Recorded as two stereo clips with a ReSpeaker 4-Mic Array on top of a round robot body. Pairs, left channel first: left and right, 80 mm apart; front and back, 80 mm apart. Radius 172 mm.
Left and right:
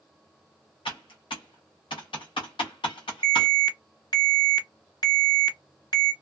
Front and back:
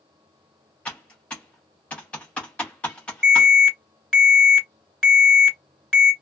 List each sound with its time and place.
0.8 s typing on a keyboard: 75° left, 0.7 m
3.2 s an alarm: 85° left, 1.9 m